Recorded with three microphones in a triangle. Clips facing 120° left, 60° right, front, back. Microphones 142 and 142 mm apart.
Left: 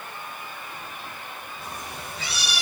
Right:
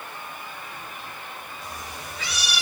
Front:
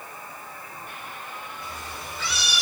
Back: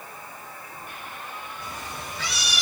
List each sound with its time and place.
1.6 s a cat meowing: 175° left, 4 m